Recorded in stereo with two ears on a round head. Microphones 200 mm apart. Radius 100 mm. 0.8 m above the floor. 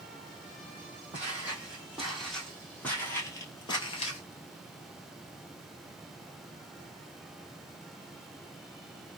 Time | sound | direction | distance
1.1 | footsteps | 5° right (ahead or behind) | 2 m